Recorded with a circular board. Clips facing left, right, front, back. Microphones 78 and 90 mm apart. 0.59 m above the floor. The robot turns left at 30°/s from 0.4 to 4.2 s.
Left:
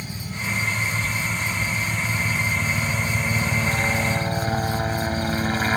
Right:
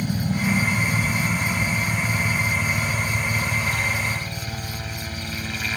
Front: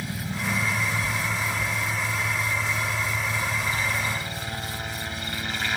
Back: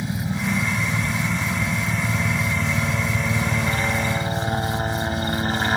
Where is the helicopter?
110° right; by 5.8 s 135° left.